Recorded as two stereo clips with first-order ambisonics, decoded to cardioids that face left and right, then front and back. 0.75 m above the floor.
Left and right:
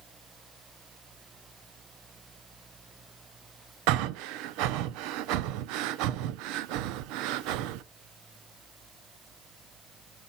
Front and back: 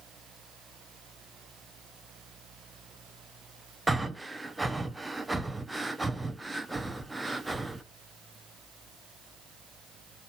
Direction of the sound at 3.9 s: 95° right.